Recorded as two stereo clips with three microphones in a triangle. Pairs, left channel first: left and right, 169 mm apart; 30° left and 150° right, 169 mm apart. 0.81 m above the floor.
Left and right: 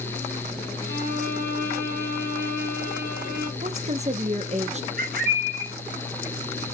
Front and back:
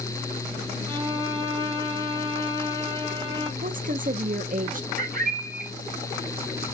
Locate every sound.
0.9 s a violin: 85° right, 1.4 m
3.6 s a woman speaking: 130° right, 0.8 m
5.0 s a bird: 120° right, 3 m